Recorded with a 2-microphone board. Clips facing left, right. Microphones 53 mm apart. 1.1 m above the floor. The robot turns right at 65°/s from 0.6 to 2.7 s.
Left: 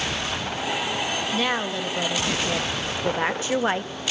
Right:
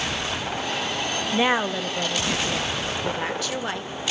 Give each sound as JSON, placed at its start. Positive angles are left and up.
{"t": 1.3, "sound": "a woman speaking", "azimuth_deg": -40, "distance_m": 0.6}